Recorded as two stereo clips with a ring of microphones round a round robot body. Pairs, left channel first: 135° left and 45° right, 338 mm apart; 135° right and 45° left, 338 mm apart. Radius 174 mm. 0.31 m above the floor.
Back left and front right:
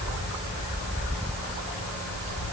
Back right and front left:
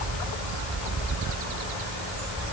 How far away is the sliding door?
No sliding door in this recording.